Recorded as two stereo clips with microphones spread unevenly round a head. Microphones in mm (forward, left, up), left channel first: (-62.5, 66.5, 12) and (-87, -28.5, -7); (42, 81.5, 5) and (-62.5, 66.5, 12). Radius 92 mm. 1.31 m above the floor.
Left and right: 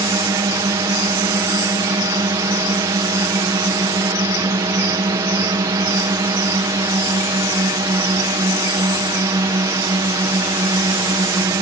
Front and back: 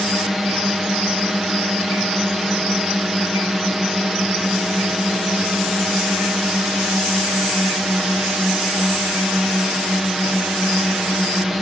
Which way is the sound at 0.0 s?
85° right.